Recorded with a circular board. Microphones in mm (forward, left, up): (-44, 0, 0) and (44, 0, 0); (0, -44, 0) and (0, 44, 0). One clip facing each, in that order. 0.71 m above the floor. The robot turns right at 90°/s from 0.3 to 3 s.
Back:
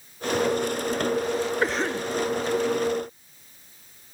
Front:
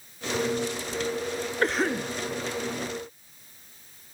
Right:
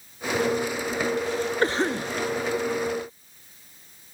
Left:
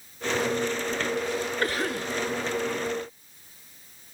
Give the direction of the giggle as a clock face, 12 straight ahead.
I don't hear a giggle.